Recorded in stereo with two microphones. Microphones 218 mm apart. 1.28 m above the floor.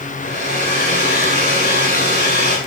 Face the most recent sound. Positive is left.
turn(degrees=50)  # may be behind; listen again after turning